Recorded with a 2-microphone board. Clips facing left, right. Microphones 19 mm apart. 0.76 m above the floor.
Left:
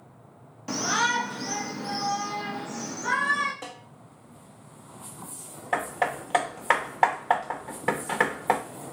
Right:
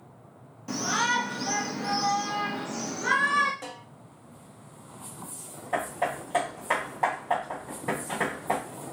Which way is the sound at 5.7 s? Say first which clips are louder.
Left 2 dB; 45° left (ahead or behind).